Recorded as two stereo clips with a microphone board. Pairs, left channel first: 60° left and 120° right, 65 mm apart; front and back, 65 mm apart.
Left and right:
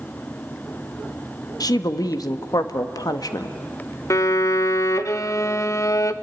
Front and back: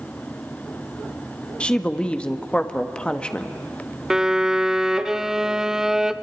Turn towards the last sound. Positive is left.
turn(degrees=100)